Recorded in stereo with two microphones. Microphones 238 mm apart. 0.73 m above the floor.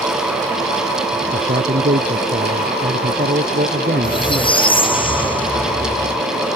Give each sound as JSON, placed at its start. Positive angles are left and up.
{"t": 1.3, "sound": "a man speaking", "side_deg": -45}
{"t": 4.0, "sound": "a squeak", "side_deg": 20}